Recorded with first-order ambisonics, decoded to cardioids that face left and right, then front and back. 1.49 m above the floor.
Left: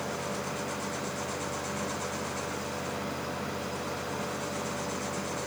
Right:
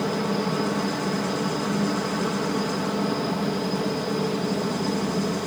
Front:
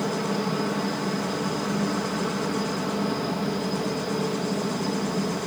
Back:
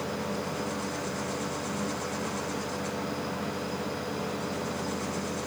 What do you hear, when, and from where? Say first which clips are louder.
0.0 s a helicopter: right 8 dB, front 6 dB; 55° right